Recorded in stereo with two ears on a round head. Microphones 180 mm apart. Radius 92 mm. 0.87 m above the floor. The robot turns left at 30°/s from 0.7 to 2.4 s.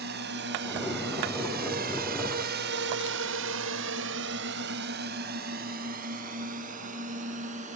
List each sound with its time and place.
0.0 s a drone: 60° right (ahead or behind); by 7.8 s 35° right (ahead or behind)